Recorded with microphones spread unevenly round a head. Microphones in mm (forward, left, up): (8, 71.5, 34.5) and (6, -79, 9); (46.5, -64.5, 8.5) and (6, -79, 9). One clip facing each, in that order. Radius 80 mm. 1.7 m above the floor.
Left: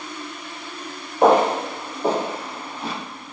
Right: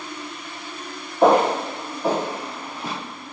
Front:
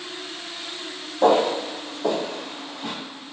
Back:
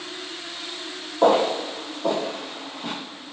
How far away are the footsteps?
About 1.9 m.